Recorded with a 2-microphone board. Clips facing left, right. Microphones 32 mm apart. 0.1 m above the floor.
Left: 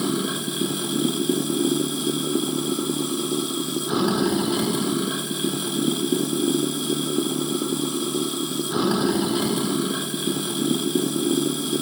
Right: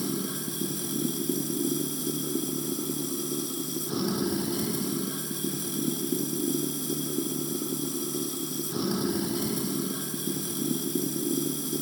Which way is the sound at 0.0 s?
60° left (ahead or behind).